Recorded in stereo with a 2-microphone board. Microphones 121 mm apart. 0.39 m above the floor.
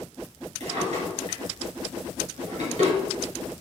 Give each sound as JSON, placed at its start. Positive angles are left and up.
{"t": 0.6, "sound": "a drawer", "side_deg": -65, "distance_m": 2.0}